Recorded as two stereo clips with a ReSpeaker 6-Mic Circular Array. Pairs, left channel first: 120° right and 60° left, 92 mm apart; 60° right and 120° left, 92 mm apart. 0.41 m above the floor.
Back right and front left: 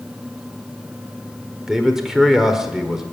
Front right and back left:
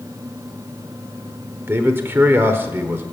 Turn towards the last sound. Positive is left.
turn(degrees=140)